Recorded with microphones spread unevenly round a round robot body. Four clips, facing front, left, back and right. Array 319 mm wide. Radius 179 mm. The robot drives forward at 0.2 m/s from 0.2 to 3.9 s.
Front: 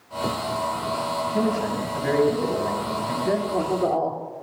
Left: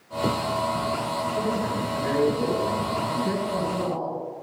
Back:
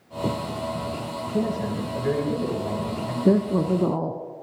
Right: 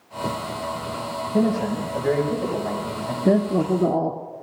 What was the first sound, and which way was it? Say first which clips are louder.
A man speaking: right 9 dB, even; 140° right.